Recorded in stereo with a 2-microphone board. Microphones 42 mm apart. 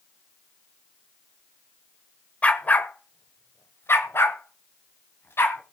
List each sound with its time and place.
2.4 s a dog barking: 35° left (ahead or behind), 1.0 m; by 5.6 s 70° left (ahead or behind), 2 m